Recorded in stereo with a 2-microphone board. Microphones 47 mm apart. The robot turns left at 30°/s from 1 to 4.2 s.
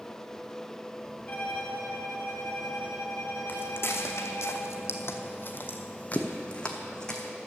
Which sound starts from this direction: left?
Footsteps, at 3.5 s.